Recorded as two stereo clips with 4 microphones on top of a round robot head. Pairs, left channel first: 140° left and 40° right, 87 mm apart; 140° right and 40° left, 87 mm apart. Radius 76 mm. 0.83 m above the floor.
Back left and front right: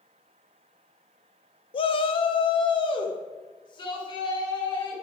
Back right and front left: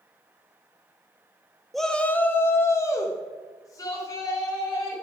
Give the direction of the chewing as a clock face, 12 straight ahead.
No chewing in this recording.